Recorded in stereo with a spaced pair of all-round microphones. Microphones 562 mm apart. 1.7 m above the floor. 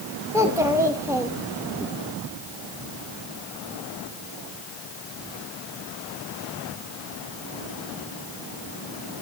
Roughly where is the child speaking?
Centre.